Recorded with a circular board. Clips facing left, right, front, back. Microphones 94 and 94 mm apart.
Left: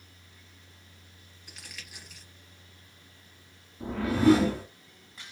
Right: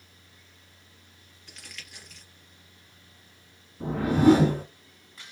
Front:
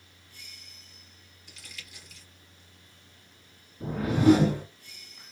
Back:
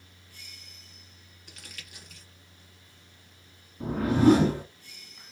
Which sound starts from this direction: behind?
Crumpling, at 1.5 s.